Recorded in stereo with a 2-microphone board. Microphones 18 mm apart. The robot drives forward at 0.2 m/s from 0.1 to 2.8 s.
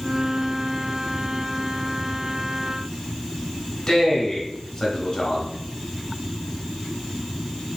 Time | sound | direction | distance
3.9 | a man speaking | 30° left (ahead or behind) | 1.5 m